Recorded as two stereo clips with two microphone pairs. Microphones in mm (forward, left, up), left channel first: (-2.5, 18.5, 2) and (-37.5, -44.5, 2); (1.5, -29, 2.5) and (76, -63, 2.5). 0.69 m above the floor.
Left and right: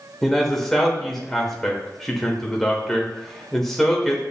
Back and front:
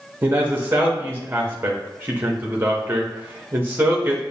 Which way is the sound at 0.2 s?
25° right.